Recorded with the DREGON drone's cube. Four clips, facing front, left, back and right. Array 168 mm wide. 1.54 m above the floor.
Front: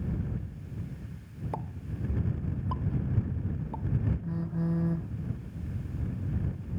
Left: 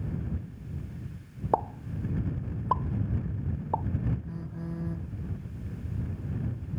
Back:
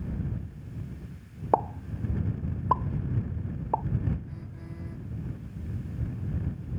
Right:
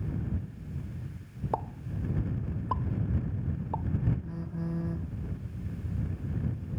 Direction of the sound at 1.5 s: 150° left.